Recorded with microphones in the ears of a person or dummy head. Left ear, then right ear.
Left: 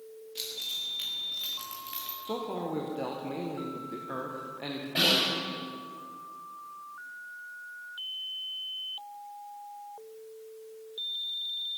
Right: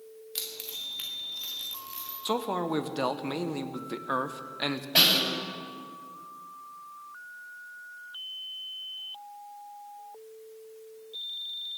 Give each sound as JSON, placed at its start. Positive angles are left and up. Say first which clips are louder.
{"t": 0.3, "sound": "keys jangling", "louder": "left 3 dB", "side_deg": -50, "distance_m": 1.8}
{"t": 2.2, "sound": "a man speaking", "louder": "right 6 dB", "side_deg": -60, "distance_m": 0.8}
{"t": 5.0, "sound": "a snare drum", "louder": "right 3 dB", "side_deg": -45, "distance_m": 7.5}